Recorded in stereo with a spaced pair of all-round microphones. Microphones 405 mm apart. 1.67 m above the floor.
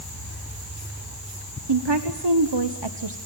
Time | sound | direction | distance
1.7 | a woman speaking | 85° right | 1.1 m